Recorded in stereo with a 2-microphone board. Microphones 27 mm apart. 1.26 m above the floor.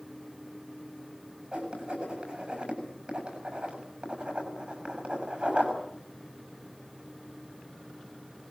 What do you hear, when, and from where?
1.5 s writing: 45° right (ahead or behind), 6.5 m